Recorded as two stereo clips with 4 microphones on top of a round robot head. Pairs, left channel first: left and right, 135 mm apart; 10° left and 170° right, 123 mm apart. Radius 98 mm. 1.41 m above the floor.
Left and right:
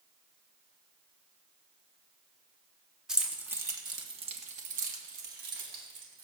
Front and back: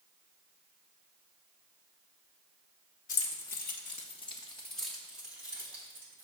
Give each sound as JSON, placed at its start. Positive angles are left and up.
{"t": 3.1, "sound": "keys jangling", "azimuth_deg": -5, "distance_m": 1.2}